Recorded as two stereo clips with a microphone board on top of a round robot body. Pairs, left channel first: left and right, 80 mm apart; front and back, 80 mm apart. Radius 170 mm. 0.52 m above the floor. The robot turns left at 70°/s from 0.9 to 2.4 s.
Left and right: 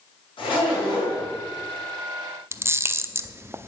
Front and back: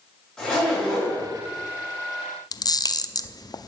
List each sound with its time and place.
0.4 s a zipper: 85° left, 8.5 m; by 1.3 s 55° left, 8.5 m
2.5 s a camera shutter: 35° right, 0.9 m